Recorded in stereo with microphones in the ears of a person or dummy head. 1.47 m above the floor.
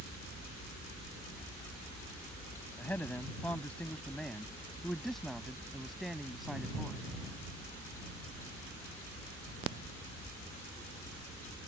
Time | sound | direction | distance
2.8 | a man speaking | 10° left (ahead or behind) | ?